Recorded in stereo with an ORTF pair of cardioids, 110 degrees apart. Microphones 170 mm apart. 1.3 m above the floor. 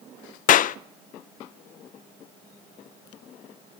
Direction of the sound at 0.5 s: 50° left.